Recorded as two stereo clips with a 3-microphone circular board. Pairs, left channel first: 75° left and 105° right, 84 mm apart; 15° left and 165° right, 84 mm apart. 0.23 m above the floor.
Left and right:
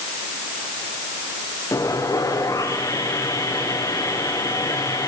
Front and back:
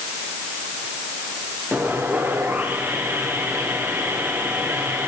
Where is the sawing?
125° left, 6.5 m.